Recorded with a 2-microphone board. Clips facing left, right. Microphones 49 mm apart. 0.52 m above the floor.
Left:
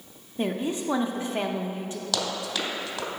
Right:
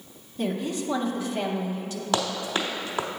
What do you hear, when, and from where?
0.4 s a woman speaking: 25° left (ahead or behind), 0.7 m
2.1 s running footsteps: 30° right (ahead or behind), 1.0 m